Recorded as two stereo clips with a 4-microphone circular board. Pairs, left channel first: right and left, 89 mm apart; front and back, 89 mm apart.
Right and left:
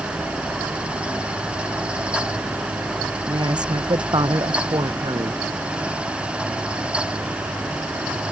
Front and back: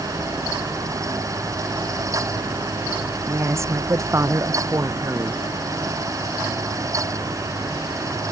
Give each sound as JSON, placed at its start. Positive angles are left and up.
{"t": 3.3, "sound": "a woman speaking", "azimuth_deg": 125}